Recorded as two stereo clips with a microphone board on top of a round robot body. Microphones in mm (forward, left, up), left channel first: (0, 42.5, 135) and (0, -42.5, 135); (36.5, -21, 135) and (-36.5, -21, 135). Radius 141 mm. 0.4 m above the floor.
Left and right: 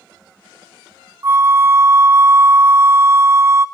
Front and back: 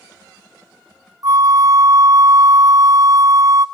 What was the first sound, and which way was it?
A flute, 145° right.